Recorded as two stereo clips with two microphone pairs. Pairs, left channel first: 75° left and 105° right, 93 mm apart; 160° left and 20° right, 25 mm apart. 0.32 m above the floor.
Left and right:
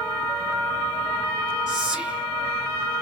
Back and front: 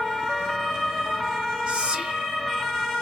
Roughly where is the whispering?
Ahead right.